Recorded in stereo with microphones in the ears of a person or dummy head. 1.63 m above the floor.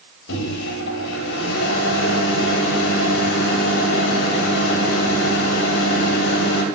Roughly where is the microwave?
Left.